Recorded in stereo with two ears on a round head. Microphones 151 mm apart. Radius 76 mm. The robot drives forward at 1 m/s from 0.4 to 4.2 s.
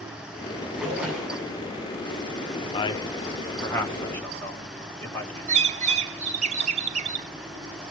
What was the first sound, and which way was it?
A splash, 5° right (ahead or behind).